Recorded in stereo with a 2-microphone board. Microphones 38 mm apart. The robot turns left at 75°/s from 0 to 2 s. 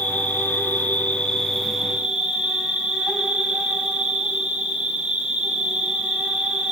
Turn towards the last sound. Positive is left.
turn(degrees=-30)